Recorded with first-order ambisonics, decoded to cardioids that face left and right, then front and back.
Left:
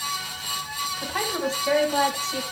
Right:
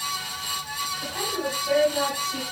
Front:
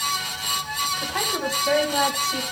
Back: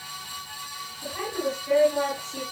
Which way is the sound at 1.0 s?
35° left.